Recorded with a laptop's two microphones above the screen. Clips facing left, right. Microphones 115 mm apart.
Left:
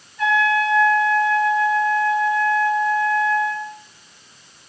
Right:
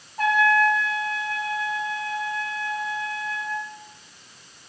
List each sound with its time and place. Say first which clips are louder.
0.2 s a trumpet: left 1 dB; 55° right (ahead or behind), 0.7 m